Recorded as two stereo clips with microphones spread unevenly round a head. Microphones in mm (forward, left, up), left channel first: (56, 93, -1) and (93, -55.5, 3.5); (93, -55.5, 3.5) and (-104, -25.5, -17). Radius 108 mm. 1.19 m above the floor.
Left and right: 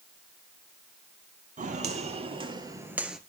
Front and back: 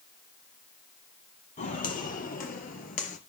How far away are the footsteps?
About 2.5 m.